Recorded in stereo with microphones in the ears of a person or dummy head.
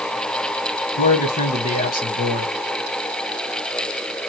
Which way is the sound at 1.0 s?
40° left (ahead or behind).